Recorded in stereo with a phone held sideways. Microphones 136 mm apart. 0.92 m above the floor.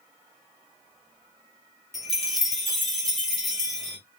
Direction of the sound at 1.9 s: Centre (ahead or behind).